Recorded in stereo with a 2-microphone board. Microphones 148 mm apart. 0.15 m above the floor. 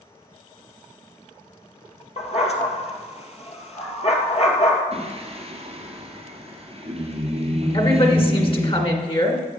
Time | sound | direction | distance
2.2 | a dog barking | 45° left (ahead or behind) | 1.4 m
4.9 | singing | 45° right (ahead or behind) | 2.5 m
7.7 | a woman speaking | 35° left (ahead or behind) | 1.7 m